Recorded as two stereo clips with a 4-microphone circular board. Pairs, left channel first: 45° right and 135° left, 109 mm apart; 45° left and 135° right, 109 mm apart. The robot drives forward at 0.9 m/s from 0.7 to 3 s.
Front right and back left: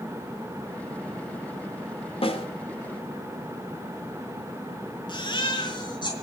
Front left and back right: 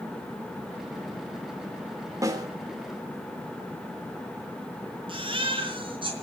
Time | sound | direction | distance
2.2 | a snare drum | 75° right | 2.5 m
5.1 | a baby crying | 90° right | 4 m